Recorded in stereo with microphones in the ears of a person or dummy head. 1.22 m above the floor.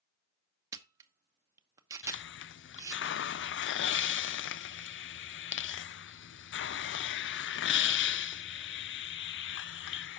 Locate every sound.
0.7 s a camera shutter: 20° right (ahead or behind), 0.9 m
2.0 s a hiss: 55° left (ahead or behind), 0.5 m